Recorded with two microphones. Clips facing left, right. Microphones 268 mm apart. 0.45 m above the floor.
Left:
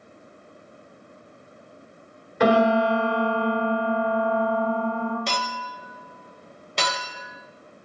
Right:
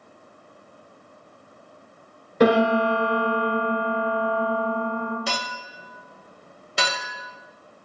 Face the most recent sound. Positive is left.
turn(degrees=-5)  # may be behind; listen again after turning